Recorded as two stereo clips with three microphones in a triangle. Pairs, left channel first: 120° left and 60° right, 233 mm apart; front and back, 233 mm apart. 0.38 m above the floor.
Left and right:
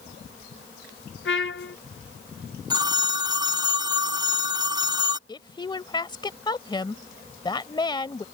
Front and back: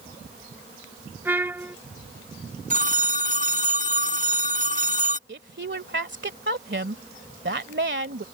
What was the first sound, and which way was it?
A trumpet, 100° left.